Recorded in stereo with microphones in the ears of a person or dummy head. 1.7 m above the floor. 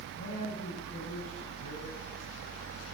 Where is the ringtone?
No ringtone in this recording.